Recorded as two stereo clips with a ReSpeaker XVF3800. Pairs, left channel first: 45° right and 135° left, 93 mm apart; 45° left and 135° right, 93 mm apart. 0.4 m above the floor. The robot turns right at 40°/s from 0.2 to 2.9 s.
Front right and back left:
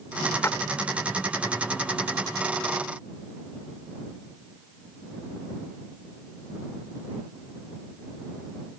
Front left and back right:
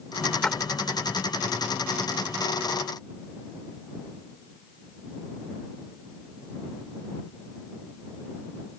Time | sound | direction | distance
0.4 | a splash | 30° right | ?